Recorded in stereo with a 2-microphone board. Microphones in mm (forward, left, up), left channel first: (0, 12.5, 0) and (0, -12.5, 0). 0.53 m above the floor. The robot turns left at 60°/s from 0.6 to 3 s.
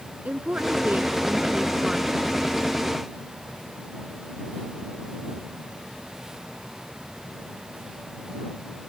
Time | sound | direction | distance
0.2 | a woman speaking | 90° right | ?